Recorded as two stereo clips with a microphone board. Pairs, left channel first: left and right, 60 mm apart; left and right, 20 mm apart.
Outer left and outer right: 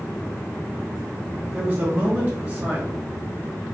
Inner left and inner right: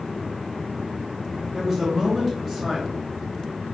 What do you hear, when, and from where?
1.5 s a man speaking: 25° right (ahead or behind), 1.5 m